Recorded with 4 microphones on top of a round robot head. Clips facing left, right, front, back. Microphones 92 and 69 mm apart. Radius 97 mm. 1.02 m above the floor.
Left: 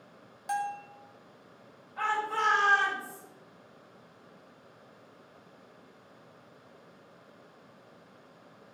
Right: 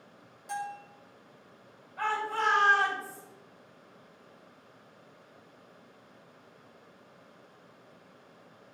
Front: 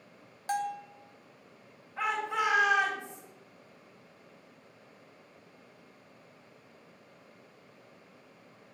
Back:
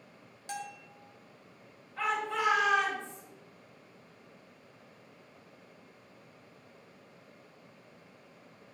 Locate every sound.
0.5 s a bell: 45° left, 0.7 m
2.0 s a shout: 75° left, 5 m